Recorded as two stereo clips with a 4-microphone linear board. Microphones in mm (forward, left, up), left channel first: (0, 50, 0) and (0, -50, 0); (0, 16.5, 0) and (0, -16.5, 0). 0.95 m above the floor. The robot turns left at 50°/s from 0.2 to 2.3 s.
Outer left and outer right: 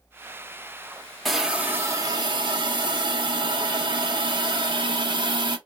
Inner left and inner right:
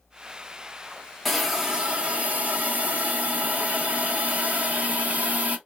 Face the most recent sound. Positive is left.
turn(degrees=-50)